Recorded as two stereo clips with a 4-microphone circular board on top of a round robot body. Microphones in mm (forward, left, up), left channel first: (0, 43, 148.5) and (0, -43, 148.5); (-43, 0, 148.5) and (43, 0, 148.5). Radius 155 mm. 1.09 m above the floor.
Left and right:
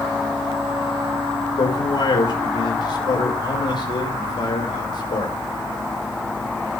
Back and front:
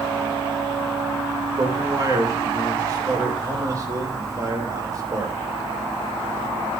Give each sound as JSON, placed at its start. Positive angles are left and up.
{"t": 1.6, "sound": "a man speaking", "azimuth_deg": 55, "distance_m": 5.0}